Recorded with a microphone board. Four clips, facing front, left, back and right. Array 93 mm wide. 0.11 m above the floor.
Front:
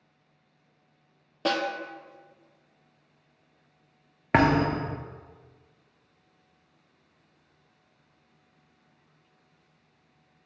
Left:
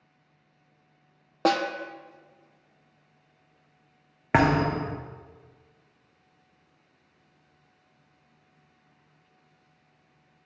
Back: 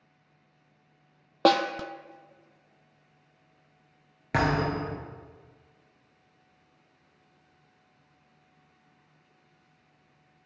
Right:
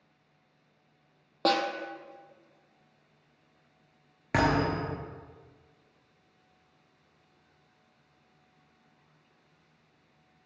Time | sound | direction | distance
1.4 | a snare drum | 165° left | 0.6 m
4.3 | a thud | 40° left | 0.6 m